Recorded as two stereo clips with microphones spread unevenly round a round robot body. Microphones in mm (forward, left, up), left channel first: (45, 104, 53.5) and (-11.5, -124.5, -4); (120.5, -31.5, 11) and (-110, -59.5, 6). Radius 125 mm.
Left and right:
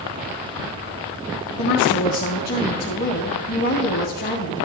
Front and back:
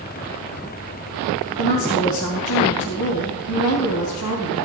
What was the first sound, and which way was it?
A woman speaking, 20° left.